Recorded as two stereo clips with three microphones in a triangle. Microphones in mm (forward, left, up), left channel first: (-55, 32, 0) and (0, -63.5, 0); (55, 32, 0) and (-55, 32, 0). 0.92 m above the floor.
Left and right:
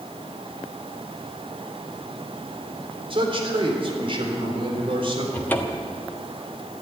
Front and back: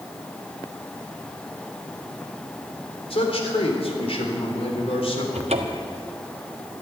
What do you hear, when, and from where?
3.1 s a man speaking: 25° right, 3.5 m
5.3 s a cupboard door: 165° right, 1.2 m